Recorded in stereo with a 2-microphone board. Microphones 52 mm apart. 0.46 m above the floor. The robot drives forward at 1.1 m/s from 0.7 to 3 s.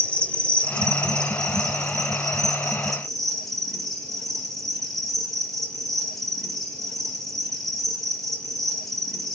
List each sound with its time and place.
0.0 s an insect: 20° left (ahead or behind), 1.3 m; by 9.4 s 5° left (ahead or behind), 3.5 m